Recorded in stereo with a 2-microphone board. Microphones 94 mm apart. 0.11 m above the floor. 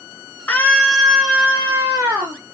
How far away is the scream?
About 1.1 m.